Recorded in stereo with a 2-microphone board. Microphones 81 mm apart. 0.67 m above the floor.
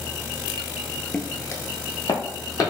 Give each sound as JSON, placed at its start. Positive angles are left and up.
{"t": 1.1, "sound": "footsteps", "side_deg": 15, "distance_m": 0.6}